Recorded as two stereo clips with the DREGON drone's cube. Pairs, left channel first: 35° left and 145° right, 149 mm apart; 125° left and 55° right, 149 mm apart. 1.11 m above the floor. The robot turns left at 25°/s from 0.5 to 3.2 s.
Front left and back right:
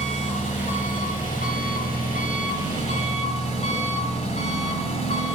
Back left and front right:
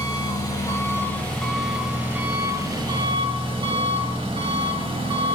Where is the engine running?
65° left, 2.5 m; by 5.4 s 5° right, 2.5 m.